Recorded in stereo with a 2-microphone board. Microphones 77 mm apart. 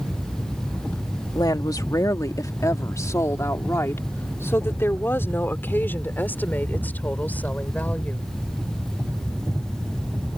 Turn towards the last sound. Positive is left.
turn(degrees=20)  # may be behind; listen again after turning